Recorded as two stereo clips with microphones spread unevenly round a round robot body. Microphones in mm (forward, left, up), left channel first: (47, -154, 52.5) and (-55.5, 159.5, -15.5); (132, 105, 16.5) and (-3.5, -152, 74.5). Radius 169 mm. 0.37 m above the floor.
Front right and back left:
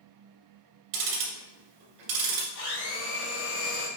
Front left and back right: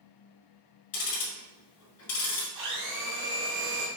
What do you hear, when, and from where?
0.9 s ticking: 110° left, 1.7 m
2.5 s a blender: 110° right, 2 m